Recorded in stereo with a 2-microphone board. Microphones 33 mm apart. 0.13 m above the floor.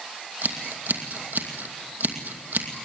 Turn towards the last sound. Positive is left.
turn(degrees=-75)  # may be behind; listen again after turning